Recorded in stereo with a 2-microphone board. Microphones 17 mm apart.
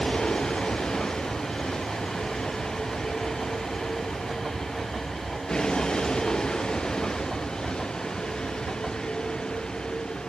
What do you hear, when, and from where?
0.0 s a vehicle: 50° left (ahead or behind)